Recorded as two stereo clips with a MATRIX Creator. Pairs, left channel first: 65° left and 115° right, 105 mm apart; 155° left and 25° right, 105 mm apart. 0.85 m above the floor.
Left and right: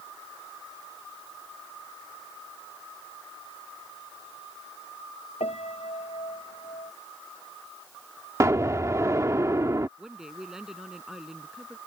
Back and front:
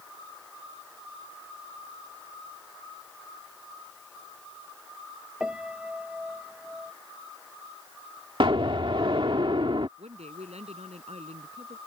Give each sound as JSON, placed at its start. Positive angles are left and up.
{"t": 5.4, "sound": "a piano", "azimuth_deg": 60}
{"t": 8.4, "sound": "an explosion", "azimuth_deg": -55}
{"t": 10.0, "sound": "a woman speaking", "azimuth_deg": -30}